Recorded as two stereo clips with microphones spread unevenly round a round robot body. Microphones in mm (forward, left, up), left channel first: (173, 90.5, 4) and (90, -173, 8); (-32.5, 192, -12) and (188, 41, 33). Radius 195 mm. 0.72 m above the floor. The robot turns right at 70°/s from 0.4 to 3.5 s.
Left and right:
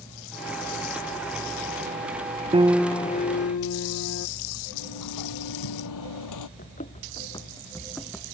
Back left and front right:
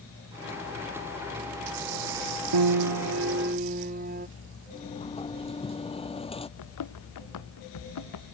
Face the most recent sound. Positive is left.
turn(degrees=165)